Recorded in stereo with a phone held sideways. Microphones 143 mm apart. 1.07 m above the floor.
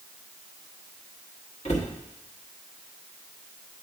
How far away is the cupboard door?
About 1.3 m.